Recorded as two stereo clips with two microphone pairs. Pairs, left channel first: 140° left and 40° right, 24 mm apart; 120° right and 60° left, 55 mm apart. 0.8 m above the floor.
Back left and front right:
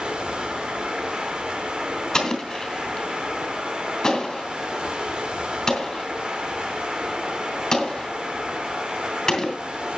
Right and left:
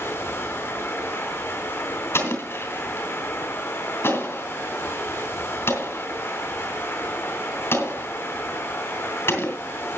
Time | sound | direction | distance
0.0 | running water | 80° right | 2.5 m
2.1 | an explosion | 155° right | 4 m